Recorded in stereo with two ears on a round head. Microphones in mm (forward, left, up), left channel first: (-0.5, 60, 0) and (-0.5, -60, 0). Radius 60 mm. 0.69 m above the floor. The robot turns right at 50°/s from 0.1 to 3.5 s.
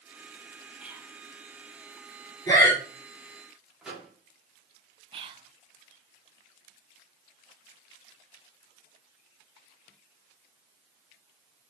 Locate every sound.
0.8 s whispering: 10° right (ahead or behind), 1.3 m; by 1.1 s 20° right (ahead or behind), 1.3 m
2.5 s breathing: 25° left (ahead or behind), 2 m; by 2.8 s 10° left (ahead or behind), 2 m
3.8 s a microwave: 5° right (ahead or behind), 1.4 m
5.1 s whispering: 40° right (ahead or behind), 0.7 m